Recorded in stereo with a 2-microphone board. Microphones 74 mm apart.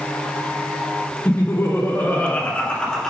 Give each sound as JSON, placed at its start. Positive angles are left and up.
{"t": 1.2, "sound": "laughter", "side_deg": 40, "distance_m": 1.6}